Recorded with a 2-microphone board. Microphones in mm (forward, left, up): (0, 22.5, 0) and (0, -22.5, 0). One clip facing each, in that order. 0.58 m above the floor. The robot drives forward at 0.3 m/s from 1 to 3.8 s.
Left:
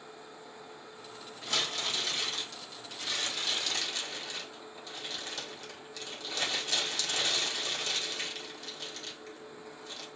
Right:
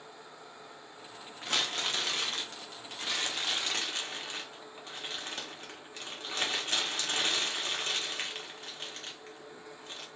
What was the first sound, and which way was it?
Crumpling, 45° right (ahead or behind).